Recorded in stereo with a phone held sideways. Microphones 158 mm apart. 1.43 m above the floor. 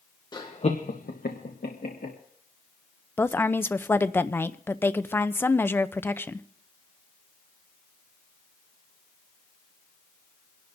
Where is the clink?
I don't hear a clink.